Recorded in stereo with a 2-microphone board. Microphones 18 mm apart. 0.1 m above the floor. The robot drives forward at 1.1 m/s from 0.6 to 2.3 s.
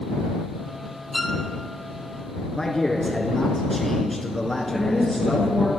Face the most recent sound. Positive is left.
turn(degrees=-15)  # may be behind; listen again after turning